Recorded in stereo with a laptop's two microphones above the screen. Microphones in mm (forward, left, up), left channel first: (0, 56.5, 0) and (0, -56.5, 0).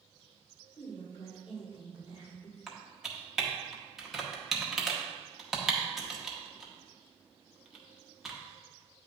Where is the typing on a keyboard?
5° right (ahead or behind), 0.8 m.